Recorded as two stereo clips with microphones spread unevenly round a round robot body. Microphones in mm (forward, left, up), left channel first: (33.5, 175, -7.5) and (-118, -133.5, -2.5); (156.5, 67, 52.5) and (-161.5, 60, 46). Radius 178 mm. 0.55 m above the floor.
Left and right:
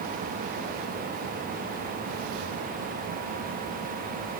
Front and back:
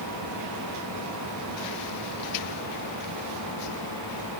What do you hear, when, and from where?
Only background noise.